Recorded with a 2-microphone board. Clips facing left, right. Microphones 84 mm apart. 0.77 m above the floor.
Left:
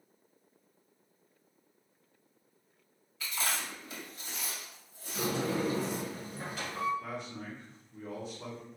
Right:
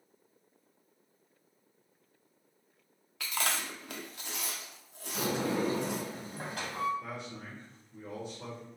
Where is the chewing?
70° right (ahead or behind), 0.5 m.